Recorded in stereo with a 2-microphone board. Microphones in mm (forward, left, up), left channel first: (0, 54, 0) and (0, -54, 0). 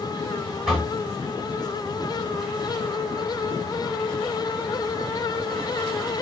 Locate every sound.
0.7 s knocking: 10° right (ahead or behind), 6 m